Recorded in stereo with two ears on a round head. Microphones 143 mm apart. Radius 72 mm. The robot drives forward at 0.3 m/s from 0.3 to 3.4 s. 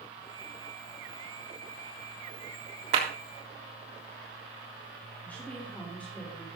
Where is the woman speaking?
10° left (ahead or behind), 3 m.